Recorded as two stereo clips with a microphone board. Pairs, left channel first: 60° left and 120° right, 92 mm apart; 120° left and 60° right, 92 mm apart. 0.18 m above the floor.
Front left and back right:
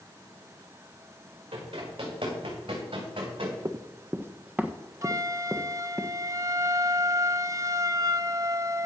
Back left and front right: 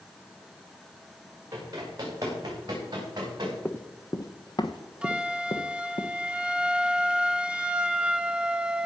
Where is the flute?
130° right, 0.5 m.